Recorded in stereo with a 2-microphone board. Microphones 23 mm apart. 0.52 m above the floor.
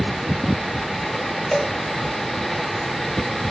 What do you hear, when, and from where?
1.5 s a cowbell: 10° left (ahead or behind), 2.0 m